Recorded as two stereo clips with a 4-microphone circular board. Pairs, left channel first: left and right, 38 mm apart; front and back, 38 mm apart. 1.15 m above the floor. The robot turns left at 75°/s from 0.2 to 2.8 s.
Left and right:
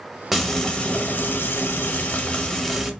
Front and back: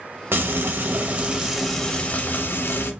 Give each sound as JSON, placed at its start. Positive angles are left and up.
{"t": 0.3, "sound": "frying", "azimuth_deg": -175, "distance_m": 0.7}